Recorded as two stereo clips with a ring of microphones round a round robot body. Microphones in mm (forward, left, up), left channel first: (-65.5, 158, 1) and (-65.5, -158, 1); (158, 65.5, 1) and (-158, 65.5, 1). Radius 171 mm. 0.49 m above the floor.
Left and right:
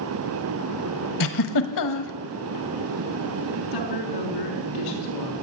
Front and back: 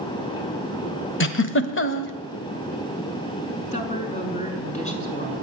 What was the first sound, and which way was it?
A giggle, 50° left.